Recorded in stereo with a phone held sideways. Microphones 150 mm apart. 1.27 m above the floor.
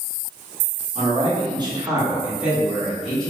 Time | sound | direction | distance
0.9 | a man speaking | 50° right (ahead or behind) | 0.9 m